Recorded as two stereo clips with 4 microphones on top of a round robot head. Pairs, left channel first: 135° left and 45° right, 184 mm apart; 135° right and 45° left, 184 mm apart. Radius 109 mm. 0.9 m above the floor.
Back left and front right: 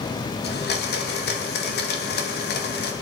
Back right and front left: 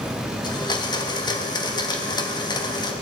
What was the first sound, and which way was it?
A blender, 160° left.